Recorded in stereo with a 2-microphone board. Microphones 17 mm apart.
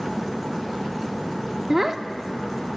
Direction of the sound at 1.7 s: 20° right (ahead or behind).